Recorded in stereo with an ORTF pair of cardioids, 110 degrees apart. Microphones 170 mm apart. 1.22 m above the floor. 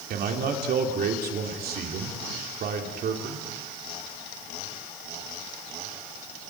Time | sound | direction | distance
0.1 | a man speaking | 65° right | 3 m